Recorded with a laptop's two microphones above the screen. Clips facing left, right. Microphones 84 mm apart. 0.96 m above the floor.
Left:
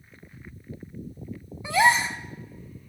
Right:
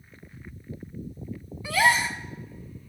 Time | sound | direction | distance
1.6 | a gasp | 25° left (ahead or behind) | 1.1 m